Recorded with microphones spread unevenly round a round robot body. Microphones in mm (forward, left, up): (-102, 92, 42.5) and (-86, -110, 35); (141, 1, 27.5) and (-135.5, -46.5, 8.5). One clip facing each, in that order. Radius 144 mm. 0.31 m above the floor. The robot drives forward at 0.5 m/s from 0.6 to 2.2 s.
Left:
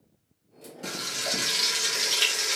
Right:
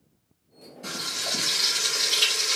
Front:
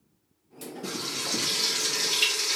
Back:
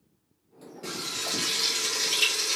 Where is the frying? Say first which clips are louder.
Left 2 dB, front 1 dB; 105° left, 2 m; by 2.6 s 120° left, 2.5 m.